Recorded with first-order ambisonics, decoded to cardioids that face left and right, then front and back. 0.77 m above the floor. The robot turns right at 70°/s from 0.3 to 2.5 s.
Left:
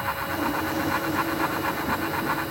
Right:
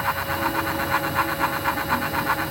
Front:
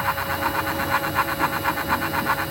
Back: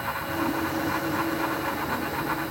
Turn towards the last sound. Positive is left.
No sound to turn to.